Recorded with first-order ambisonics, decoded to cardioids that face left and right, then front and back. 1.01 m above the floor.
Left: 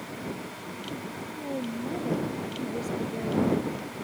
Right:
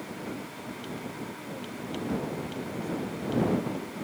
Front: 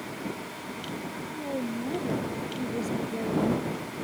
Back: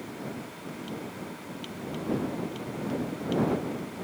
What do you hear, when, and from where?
1.3 s a woman speaking: 35° left